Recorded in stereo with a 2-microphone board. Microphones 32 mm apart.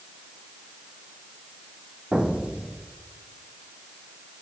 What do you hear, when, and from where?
2.1 s an explosion: 40° right (ahead or behind), 1.4 m